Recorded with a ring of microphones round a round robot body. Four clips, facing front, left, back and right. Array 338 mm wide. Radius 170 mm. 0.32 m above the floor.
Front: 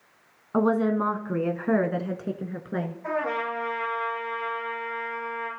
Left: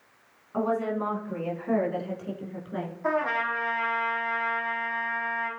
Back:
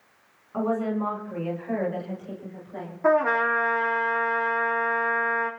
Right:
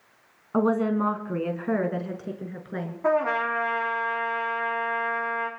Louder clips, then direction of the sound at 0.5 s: Right 4 dB, front 4 dB; 40° right.